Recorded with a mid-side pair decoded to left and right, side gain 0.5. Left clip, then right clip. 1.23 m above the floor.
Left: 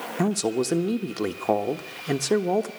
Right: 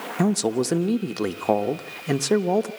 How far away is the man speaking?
About 1.2 m.